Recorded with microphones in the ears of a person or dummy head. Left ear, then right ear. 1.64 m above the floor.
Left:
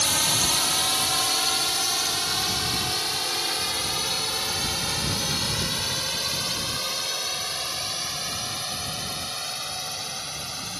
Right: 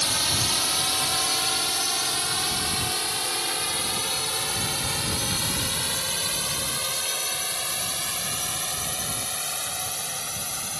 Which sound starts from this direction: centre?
A drone, at 0.0 s.